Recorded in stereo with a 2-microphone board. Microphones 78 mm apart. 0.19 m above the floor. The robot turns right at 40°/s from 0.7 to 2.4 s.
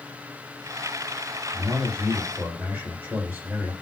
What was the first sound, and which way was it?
A man speaking, 55° right.